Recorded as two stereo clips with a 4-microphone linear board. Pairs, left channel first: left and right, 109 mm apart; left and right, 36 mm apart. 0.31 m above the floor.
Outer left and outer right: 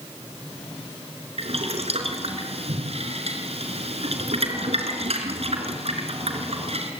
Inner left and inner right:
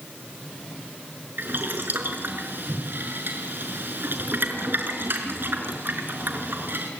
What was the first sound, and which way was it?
Boiling, 65° right (ahead or behind).